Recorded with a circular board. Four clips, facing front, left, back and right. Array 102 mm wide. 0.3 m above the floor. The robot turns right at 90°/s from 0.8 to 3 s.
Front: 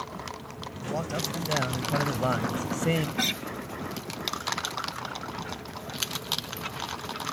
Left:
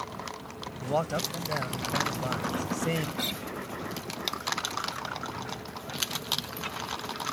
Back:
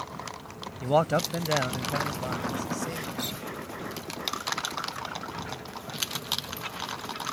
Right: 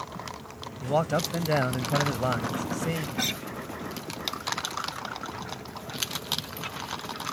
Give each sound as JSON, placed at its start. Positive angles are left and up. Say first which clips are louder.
{"t": 0.8, "sound": "a man speaking", "louder": "right 3 dB, back 8 dB", "azimuth_deg": -175}
{"t": 3.2, "sound": "a guitar", "louder": "right 3 dB, front 4 dB", "azimuth_deg": -30}